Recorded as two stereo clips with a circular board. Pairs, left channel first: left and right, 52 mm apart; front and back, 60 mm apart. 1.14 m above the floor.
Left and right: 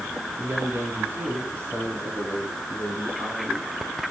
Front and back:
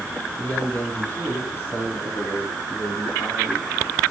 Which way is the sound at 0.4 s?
60° right.